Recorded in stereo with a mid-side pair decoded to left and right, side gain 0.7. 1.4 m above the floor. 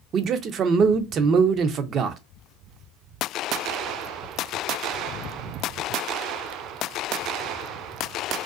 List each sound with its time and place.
0.1 s a man speaking: 40° right, 0.5 m